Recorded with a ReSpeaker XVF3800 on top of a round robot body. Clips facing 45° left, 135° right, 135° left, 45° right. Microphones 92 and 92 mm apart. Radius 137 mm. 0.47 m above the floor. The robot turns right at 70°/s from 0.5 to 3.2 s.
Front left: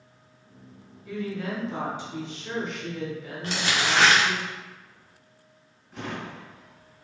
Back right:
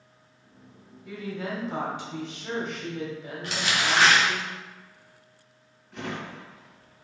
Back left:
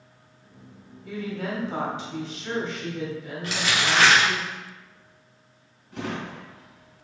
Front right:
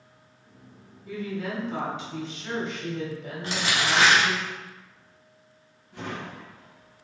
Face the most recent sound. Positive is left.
turn(degrees=130)